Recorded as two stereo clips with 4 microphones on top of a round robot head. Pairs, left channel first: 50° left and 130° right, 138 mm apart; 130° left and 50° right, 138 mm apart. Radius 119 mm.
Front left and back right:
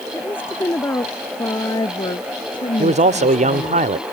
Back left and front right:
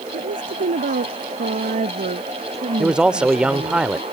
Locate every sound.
0.1 s a woman speaking: 25° right; by 3.8 s 5° left
2.8 s a man speaking: 135° right